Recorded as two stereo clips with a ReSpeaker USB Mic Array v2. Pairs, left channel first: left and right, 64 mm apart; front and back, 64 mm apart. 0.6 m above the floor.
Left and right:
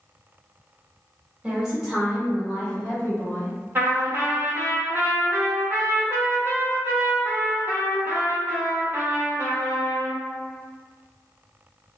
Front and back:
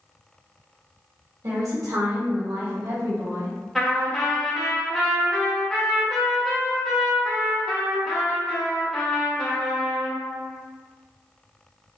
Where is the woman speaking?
160° right, 1.5 m; by 3.5 s 155° left, 2.5 m.